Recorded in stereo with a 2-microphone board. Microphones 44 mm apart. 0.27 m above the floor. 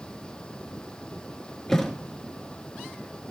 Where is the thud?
10° left (ahead or behind), 1.2 m.